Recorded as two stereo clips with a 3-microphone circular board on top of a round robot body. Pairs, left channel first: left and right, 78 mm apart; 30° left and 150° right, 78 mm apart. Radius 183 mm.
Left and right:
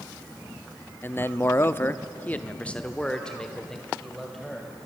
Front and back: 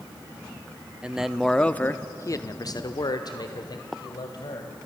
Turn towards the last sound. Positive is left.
turn(degrees=5)